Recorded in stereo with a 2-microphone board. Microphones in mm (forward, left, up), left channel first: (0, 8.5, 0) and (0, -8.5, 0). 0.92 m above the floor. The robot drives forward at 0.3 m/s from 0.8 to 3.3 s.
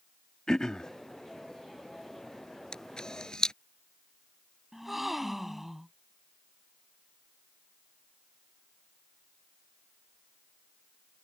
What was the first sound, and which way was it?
Throat clearing, 45° left (ahead or behind).